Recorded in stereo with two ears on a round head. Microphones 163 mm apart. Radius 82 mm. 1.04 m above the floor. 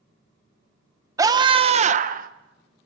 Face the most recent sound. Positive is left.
turn(degrees=-50)  # may be behind; listen again after turning